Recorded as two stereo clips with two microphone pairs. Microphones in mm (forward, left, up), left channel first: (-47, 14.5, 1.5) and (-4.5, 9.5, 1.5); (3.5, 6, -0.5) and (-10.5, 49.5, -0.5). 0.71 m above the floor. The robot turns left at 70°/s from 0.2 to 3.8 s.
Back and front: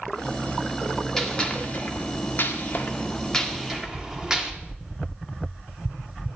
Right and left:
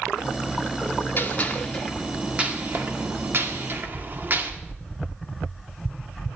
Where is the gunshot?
110° right, 1.7 m; by 4.5 s 65° left, 1.7 m.